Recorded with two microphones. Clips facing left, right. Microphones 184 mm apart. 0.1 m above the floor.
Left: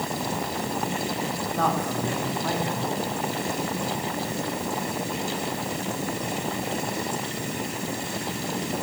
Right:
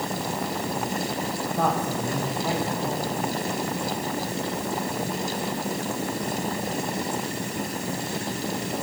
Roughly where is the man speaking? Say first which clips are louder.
Even; centre.